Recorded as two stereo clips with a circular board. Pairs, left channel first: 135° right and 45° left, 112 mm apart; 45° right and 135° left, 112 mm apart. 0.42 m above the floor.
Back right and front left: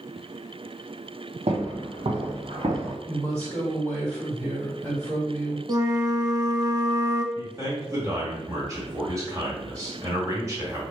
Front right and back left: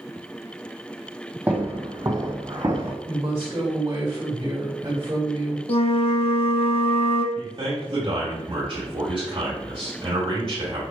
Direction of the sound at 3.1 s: 90° left.